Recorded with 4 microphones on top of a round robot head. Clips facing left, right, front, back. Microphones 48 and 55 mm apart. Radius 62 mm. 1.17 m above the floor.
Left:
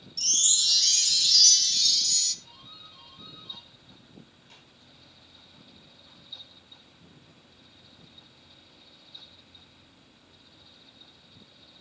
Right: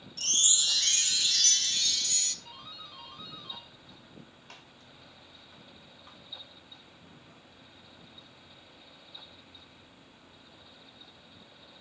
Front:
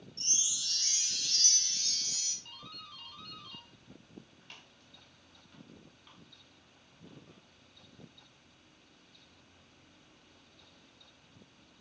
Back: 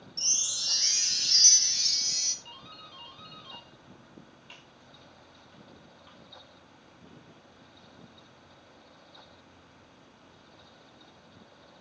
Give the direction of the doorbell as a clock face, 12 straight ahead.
3 o'clock.